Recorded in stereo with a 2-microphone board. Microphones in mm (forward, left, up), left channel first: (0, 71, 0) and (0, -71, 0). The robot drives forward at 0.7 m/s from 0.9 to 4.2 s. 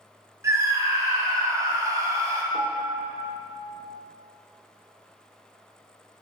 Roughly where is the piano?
Right.